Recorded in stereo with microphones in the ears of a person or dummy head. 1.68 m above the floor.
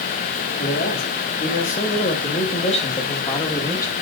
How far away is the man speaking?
About 3 m.